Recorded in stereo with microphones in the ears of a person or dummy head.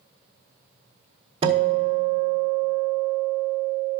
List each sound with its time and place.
1.4 s a guitar: 25° right (ahead or behind), 1.5 m